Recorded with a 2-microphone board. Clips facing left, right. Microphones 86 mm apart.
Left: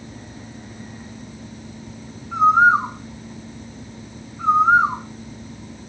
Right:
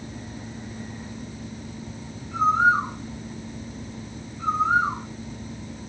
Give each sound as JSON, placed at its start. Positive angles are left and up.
{"t": 2.3, "sound": "a bird", "side_deg": 70, "distance_m": 2.0}